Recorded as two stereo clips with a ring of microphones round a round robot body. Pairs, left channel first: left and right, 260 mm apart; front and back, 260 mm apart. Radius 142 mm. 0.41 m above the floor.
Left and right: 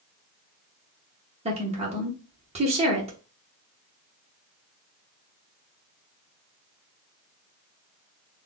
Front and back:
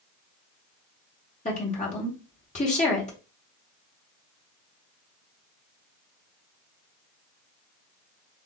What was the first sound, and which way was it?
A woman speaking, 40° right.